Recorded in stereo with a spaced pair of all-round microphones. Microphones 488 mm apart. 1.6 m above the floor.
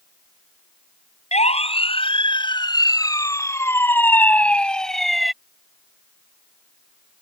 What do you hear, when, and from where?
1.3 s a siren: 10° left (ahead or behind); by 5.3 s centre (ahead or behind)